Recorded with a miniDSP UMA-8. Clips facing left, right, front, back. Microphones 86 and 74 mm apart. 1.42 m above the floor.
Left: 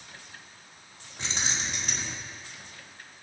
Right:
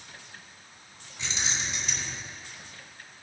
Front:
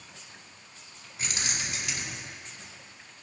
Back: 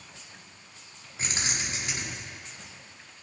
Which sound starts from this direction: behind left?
Keys jangling, at 1.2 s.